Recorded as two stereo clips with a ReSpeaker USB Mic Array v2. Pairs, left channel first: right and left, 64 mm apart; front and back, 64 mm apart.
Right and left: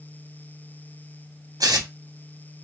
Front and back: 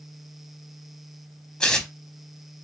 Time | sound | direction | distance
1.6 | tearing paper | 80° left | 0.6 m